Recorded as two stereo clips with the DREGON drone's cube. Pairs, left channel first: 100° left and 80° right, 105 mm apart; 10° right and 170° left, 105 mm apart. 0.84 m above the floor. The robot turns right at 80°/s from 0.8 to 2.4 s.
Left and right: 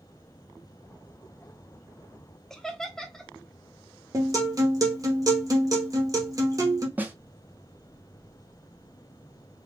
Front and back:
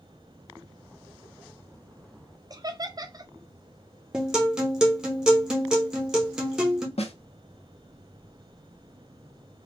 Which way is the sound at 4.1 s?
110° right.